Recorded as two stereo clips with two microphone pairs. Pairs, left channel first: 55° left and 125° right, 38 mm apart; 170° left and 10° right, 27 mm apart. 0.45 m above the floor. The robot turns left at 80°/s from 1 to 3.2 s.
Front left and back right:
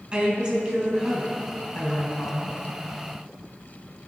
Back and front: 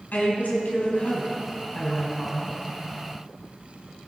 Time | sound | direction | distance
0.1 | a woman speaking | 175° left | 4 m